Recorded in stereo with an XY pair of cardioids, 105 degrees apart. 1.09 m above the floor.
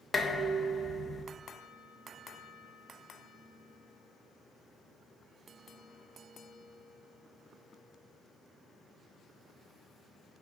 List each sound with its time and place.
0.1 s dishes clattering: 25° left, 1.1 m